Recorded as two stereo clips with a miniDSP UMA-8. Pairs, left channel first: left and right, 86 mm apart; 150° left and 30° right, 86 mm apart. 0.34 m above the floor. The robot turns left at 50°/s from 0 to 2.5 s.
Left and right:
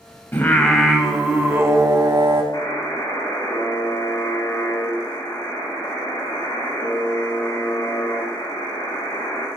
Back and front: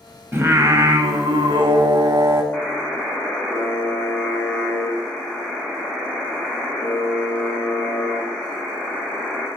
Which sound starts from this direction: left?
A buzzer, at 2.5 s.